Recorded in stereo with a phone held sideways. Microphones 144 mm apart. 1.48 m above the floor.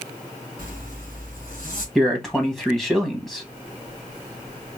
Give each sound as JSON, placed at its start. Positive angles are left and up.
{"t": 0.6, "sound": "a zipper", "side_deg": 65, "distance_m": 2.5}
{"t": 1.9, "sound": "a man speaking", "side_deg": 5, "distance_m": 1.3}